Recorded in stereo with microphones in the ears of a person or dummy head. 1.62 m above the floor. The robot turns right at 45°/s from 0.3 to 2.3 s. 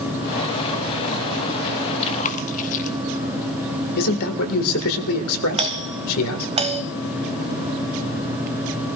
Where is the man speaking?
85° left, 2 m.